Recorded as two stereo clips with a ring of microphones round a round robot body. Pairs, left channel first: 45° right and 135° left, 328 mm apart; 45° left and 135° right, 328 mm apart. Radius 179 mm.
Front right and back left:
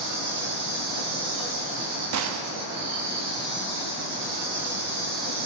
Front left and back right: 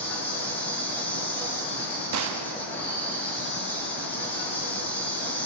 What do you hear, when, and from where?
0.0 s an insect: 130° left, 5 m
2.1 s a gunshot: straight behind, 0.6 m